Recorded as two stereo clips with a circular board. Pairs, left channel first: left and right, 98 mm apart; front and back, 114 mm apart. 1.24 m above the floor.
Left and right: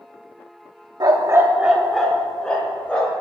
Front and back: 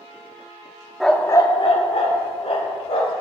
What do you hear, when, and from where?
1.0 s a dog barking: 90° right, 0.9 m; by 3.1 s 15° left, 3 m